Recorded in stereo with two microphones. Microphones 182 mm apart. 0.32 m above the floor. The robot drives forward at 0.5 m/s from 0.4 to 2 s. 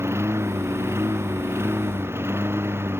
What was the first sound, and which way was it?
A lawn mower, 15° right (ahead or behind).